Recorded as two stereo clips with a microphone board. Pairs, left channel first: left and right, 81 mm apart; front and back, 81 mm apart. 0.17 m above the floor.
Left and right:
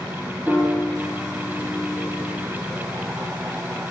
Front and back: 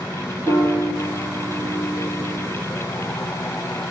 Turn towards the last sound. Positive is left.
turn(degrees=0)